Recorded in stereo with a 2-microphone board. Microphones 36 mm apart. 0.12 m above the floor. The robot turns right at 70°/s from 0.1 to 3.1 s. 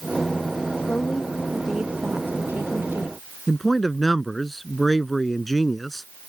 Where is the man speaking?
5° left (ahead or behind).